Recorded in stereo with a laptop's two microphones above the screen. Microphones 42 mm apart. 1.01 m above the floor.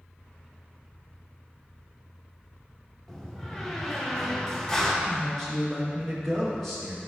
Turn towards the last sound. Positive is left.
turn(degrees=10)  # may be behind; listen again after turning